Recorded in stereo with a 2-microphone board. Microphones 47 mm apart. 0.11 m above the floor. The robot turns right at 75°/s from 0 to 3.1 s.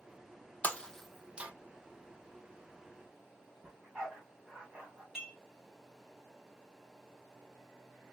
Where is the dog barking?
15° right (ahead or behind), 2 m.